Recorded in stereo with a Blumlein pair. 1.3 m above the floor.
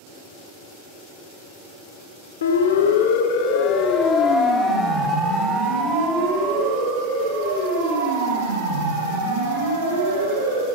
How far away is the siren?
About 2 m.